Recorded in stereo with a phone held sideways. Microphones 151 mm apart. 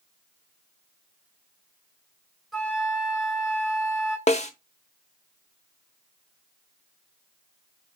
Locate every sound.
2.5 s a flute: centre (ahead or behind), 2.5 m
4.3 s a snare drum: 50° left (ahead or behind), 0.7 m